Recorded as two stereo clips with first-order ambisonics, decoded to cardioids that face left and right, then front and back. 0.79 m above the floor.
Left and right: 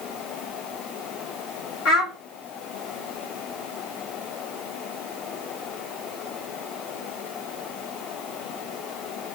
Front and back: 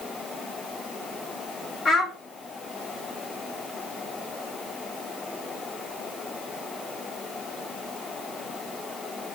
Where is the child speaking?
60° left, 1.2 m.